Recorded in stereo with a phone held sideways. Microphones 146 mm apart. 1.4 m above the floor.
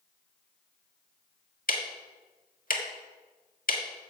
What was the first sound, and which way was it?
Ticking, 65° left (ahead or behind).